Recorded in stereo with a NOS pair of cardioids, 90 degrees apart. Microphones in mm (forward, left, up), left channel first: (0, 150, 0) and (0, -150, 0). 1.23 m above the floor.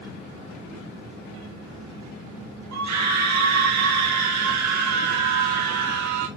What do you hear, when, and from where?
2.7 s a scream: 65° right, 1.6 m